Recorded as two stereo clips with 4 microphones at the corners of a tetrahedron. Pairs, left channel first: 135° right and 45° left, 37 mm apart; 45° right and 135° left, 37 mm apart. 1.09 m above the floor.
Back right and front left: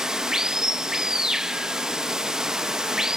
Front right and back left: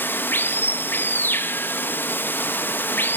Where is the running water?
25° right, 0.7 m.